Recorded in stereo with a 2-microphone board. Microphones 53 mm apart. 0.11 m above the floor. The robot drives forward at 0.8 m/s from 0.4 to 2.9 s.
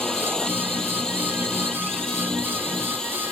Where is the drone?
10° left (ahead or behind).